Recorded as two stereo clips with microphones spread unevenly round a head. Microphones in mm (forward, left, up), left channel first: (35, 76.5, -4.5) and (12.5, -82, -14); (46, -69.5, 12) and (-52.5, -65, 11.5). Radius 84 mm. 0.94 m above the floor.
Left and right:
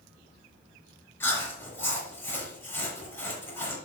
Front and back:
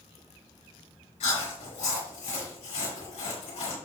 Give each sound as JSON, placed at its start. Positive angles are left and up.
{"t": 1.2, "sound": "chewing", "azimuth_deg": 5, "distance_m": 5.5}